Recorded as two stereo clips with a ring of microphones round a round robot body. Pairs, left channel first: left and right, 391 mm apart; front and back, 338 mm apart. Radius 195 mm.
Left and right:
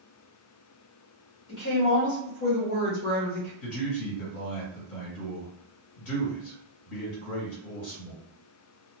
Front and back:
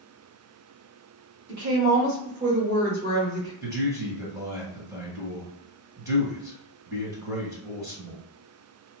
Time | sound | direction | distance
1.5 | a woman speaking | 130° left | 1.9 m
3.6 | a man speaking | 105° left | 2.0 m